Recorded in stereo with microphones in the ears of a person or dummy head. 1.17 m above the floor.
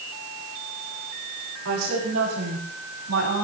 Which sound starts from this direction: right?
A woman speaking, at 1.6 s.